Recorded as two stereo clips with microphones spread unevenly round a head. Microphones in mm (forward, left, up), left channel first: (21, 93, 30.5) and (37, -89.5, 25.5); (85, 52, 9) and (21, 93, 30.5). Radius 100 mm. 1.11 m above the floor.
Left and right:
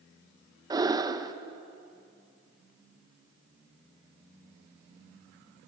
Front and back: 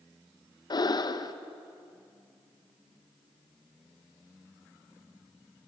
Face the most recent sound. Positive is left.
turn(degrees=-15)